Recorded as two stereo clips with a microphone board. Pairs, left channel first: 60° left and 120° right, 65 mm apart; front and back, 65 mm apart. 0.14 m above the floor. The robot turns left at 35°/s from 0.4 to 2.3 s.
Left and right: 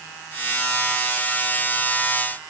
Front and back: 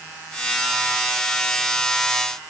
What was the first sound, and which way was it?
Only background noise.